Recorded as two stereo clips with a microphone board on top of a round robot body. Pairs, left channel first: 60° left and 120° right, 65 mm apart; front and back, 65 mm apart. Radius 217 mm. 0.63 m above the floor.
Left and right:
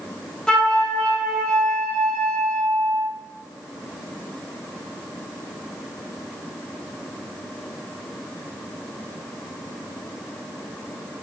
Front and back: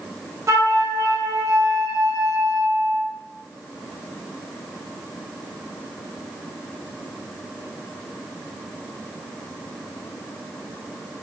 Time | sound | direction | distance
0.5 | a flute | 140° left | 1.6 m